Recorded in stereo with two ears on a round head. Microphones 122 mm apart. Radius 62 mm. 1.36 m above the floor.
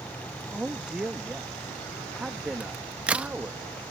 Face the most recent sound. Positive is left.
turn(degrees=-10)  # may be behind; listen again after turning